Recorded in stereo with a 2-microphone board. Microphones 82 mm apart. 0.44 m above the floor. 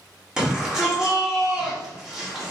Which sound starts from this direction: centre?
A shout, at 0.4 s.